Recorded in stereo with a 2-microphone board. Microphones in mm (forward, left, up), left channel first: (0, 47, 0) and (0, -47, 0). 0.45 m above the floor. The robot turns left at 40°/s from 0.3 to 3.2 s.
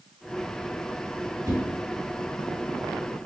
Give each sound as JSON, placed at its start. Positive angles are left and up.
{"t": 1.4, "sound": "a whoosh", "side_deg": -35, "distance_m": 2.0}